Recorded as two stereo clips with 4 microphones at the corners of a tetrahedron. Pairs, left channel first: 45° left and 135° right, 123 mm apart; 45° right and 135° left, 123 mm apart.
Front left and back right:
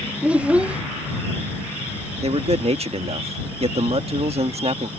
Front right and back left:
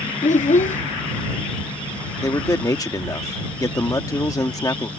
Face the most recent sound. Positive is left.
turn(degrees=-105)